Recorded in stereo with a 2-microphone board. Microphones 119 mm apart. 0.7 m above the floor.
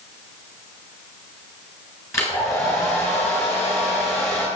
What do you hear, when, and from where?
2.1 s a hair dryer: 25° left (ahead or behind), 8 m